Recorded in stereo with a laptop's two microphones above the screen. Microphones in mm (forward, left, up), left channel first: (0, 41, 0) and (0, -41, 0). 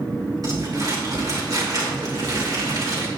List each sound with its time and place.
0.4 s crumpling: 50° right (ahead or behind), 3 m